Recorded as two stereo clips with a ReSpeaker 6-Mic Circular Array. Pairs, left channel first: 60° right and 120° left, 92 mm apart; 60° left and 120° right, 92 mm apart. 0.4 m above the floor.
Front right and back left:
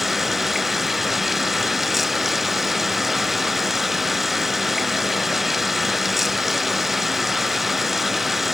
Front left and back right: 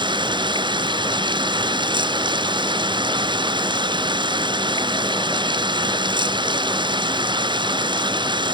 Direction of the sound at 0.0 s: 150° right.